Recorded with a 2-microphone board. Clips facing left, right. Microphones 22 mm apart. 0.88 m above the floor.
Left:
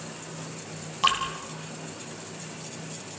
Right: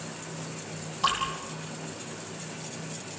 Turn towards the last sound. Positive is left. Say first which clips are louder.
# left 3 dB
turn(degrees=60)  # may be behind; listen again after turning